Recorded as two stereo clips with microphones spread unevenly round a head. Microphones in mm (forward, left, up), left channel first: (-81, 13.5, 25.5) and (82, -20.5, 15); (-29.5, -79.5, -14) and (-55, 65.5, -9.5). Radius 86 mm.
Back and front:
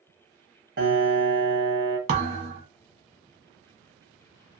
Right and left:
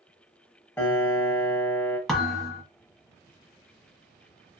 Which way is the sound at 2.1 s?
5° left.